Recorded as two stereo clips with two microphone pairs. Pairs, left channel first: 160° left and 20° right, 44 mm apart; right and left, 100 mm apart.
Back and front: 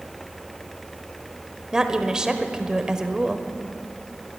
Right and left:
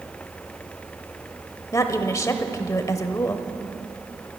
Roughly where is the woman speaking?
Right.